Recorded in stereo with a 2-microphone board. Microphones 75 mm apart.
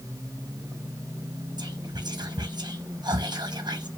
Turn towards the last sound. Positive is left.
turn(degrees=-65)  # may be behind; listen again after turning